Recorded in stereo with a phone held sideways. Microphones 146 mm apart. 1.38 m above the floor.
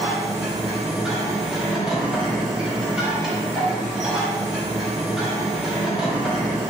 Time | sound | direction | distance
0.0 | a machine running | 5° right (ahead or behind) | 1.1 m